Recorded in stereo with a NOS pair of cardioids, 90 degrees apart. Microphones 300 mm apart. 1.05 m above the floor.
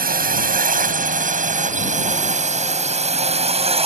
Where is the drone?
30° right; by 3.9 s 20° right.